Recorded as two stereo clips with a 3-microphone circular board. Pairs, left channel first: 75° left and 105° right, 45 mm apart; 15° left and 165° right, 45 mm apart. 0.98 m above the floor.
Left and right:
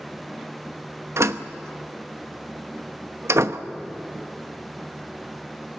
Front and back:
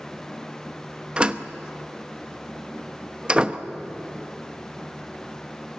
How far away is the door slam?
About 0.8 m.